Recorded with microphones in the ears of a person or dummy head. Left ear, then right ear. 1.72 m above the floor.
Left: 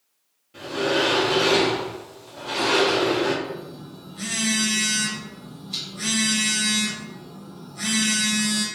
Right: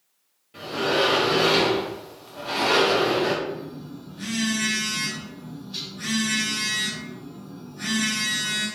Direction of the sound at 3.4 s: 50° left (ahead or behind).